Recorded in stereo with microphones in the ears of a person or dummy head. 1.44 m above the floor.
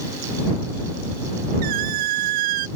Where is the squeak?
55° right (ahead or behind).